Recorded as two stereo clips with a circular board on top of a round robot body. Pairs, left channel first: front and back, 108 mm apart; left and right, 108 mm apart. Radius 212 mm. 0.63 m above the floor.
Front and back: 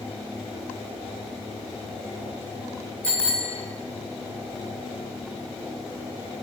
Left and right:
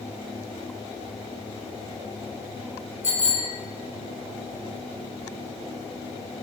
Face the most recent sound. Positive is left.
turn(degrees=80)